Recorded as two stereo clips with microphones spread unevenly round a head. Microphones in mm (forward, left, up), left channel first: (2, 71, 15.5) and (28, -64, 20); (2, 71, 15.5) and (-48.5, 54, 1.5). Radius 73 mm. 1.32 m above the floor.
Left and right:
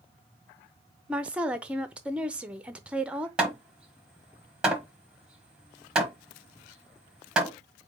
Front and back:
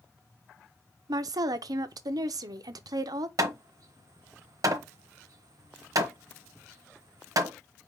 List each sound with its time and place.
1.1 s a woman speaking: 160° right, 0.6 m
3.4 s hammering: 165° right, 1.2 m